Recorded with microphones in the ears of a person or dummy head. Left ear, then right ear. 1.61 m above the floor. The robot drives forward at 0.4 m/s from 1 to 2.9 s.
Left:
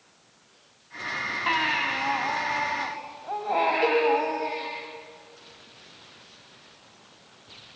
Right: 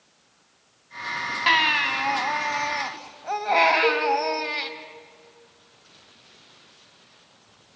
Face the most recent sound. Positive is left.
turn(degrees=30)  # may be behind; listen again after turning